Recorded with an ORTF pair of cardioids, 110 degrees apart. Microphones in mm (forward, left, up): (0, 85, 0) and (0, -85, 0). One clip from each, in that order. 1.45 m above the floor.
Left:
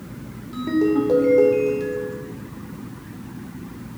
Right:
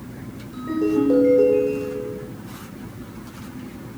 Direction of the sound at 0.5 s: 60° left.